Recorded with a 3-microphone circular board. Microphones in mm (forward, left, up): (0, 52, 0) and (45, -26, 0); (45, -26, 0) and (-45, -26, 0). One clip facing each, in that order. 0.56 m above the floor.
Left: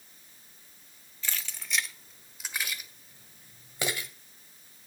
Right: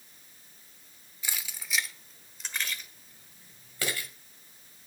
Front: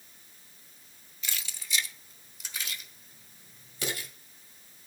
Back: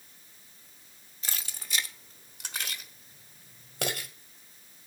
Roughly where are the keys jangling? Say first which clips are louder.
Left 1 dB, even; behind right.